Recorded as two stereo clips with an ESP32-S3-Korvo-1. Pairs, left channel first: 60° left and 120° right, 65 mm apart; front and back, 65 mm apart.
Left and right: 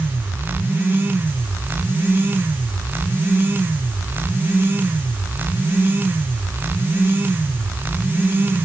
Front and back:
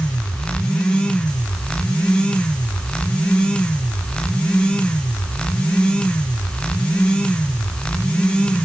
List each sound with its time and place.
Only background noise.